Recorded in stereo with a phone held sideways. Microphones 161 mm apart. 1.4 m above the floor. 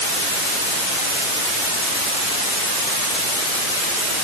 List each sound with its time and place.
Only background noise.